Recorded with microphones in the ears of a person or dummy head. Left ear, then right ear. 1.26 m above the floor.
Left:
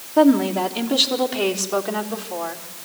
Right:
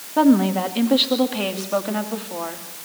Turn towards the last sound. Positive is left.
turn(degrees=0)  # may be behind; listen again after turning